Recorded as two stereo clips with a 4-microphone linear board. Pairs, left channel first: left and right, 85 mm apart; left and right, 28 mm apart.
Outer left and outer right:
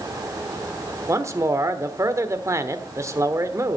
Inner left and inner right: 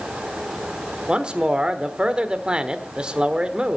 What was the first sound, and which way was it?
A man speaking, 35° right (ahead or behind).